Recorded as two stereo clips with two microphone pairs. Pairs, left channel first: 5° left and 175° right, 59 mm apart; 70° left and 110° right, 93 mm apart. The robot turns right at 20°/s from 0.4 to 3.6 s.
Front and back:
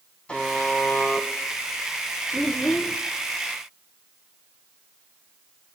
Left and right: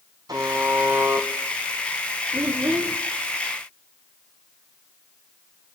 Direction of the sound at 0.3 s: 70° right.